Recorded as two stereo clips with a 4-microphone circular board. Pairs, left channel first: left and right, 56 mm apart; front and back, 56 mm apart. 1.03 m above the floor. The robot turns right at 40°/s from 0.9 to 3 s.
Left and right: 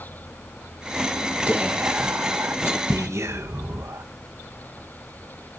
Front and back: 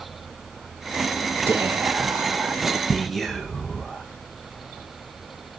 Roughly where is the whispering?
Behind right.